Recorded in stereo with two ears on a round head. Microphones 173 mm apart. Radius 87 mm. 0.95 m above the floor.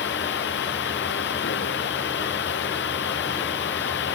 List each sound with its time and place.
0.0 s running water: 65° left (ahead or behind)